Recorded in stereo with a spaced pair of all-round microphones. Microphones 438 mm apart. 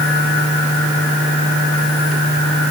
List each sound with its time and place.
Only background noise.